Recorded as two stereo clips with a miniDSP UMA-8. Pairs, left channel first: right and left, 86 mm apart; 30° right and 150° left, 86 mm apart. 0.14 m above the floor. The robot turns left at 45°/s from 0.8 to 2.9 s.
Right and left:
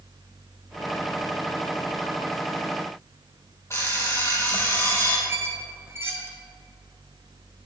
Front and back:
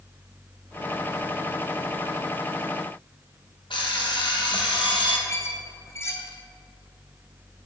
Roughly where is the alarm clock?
Ahead right.